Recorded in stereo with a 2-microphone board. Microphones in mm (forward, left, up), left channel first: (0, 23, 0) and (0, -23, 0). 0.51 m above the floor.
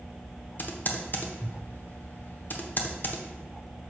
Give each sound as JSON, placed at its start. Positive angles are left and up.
{"t": 0.6, "sound": "typing on a keyboard", "side_deg": 45, "distance_m": 0.9}